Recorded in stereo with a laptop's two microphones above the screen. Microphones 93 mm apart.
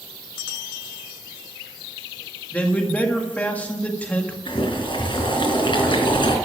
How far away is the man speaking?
About 1.8 m.